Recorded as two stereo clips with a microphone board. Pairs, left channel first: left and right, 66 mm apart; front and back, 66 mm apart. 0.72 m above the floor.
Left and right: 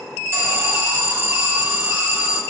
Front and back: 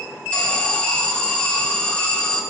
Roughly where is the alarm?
Ahead right.